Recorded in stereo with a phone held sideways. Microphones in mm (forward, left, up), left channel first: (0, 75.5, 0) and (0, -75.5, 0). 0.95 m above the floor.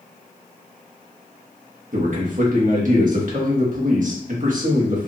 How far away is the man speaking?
About 1.4 m.